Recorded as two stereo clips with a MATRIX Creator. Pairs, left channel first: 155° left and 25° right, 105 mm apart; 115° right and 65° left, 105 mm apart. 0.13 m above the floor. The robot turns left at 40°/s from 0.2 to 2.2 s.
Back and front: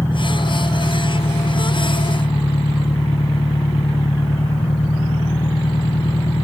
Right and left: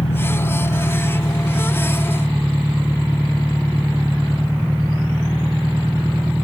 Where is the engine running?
140° right; by 6.5 s 140° left.